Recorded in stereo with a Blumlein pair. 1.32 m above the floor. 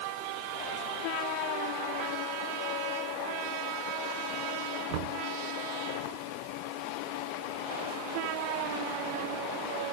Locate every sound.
4.9 s knocking: 45° right